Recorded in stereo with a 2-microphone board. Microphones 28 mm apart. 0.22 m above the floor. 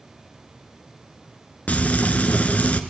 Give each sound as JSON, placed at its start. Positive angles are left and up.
{"t": 1.7, "sound": "frying", "side_deg": 55, "distance_m": 1.6}